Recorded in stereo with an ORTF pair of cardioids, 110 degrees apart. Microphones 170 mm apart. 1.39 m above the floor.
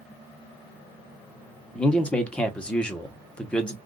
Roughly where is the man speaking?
Ahead.